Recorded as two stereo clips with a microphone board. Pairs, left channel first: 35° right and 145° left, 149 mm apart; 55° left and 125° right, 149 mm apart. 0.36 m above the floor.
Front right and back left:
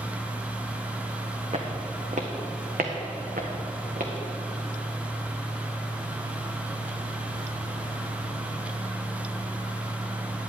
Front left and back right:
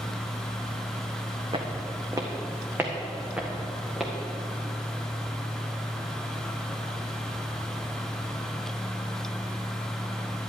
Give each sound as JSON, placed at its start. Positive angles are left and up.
{"t": 1.5, "sound": "footsteps", "azimuth_deg": -175, "distance_m": 1.4}